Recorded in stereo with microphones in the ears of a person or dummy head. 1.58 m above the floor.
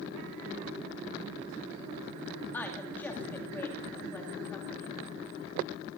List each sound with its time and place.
2.5 s a woman speaking: 5° left (ahead or behind), 2.5 m